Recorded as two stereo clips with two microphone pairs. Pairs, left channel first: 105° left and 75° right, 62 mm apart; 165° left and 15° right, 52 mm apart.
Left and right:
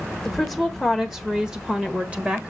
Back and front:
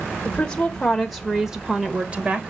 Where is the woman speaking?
170° right, 1.4 m; by 2.5 s 25° right, 1.6 m.